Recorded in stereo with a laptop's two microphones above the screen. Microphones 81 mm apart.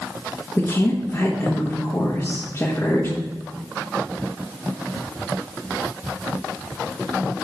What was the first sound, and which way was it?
A woman speaking, 35° left (ahead or behind).